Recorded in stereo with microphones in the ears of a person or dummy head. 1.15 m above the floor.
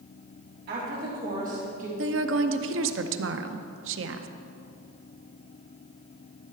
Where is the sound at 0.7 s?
45° right (ahead or behind), 3 m; by 1.9 s 35° right (ahead or behind), 2.5 m.